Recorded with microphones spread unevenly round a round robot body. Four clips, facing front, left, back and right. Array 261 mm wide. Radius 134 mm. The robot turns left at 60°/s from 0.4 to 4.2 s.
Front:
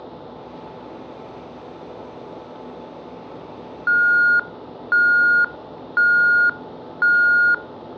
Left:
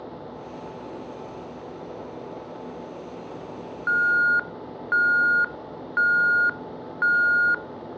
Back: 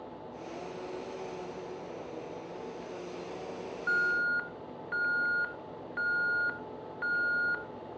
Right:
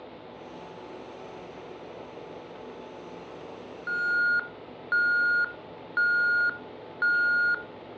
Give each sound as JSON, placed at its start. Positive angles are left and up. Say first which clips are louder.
{"t": 3.9, "sound": "an alarm", "louder": "left 5 dB, front 14 dB", "azimuth_deg": 40, "distance_m": 0.8}